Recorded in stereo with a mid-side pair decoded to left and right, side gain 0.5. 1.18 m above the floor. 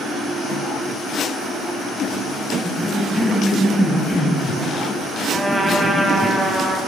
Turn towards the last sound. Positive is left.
turn(degrees=-15)